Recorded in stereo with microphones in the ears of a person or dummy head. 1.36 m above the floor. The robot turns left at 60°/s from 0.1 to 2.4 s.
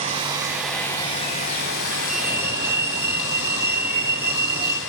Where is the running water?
150° right, 3 m; by 4.9 s 75° left, 3 m.